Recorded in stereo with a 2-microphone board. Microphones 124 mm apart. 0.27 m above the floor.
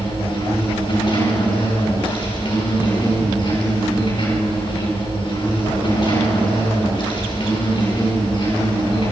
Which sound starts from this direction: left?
An insect, at 0.0 s.